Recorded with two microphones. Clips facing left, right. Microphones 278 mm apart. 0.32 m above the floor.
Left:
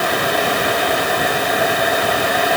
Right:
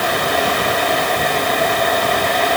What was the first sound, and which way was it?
Only background noise.